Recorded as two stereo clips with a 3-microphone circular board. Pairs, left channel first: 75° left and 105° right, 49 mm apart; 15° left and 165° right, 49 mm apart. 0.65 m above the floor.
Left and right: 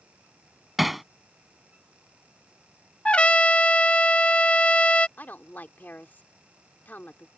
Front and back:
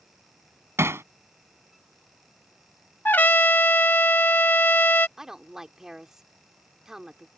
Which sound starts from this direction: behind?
Hammering, at 0.8 s.